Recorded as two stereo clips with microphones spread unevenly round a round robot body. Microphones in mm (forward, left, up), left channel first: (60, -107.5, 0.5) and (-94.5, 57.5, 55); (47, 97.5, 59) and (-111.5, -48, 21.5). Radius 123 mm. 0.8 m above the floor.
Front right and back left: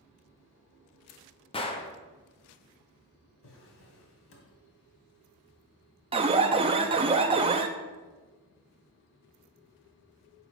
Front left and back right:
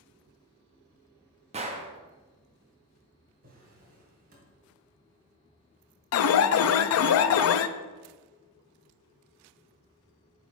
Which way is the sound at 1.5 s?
95° right.